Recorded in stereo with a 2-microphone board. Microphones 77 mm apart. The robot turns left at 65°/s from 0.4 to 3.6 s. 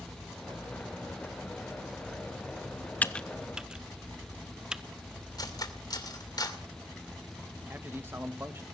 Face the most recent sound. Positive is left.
turn(degrees=-30)  # may be behind; listen again after turning